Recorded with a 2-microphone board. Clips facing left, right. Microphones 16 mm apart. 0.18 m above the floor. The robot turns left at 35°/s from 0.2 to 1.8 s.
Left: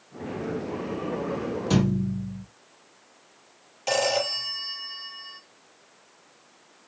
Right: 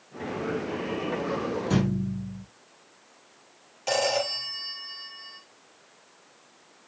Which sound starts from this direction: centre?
A phone ringing, at 3.9 s.